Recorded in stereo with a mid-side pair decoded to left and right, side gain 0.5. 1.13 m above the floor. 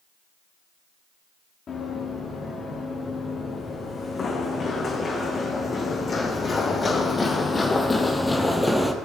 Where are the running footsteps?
40° left, 4.5 m; by 8.9 s 5° left, 1.2 m.